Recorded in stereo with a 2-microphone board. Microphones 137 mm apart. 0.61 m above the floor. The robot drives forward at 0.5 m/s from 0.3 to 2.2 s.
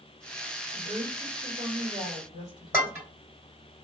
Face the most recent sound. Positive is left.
turn(degrees=-15)  # may be behind; listen again after turning